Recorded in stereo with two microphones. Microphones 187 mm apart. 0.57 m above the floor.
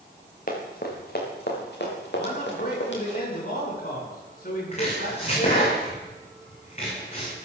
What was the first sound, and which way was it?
Running footsteps, 50° left (ahead or behind).